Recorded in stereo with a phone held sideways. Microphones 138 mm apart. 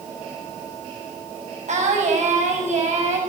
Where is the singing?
65° right (ahead or behind), 6.5 m.